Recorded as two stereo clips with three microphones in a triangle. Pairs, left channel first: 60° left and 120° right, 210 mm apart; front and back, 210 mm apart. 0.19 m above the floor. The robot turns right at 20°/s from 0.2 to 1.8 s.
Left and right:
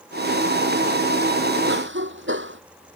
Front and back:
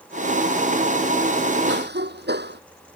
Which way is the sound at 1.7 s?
145° right.